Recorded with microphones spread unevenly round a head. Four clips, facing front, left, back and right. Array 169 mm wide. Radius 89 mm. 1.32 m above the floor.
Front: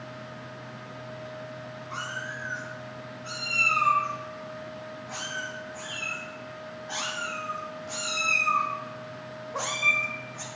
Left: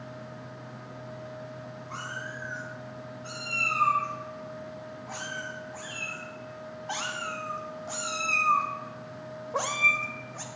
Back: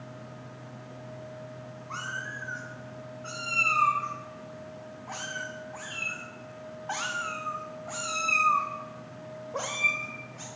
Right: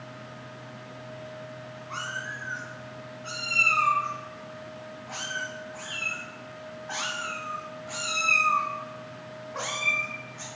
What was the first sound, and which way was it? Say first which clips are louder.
A cat meowing: right 3 dB, front 1 dB; 170° left.